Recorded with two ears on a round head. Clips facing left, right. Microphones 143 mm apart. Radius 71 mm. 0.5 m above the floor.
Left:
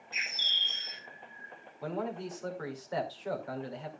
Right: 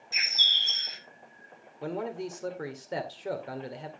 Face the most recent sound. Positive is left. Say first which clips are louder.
# right 2 dB
turn(degrees=-30)  # may be behind; listen again after turning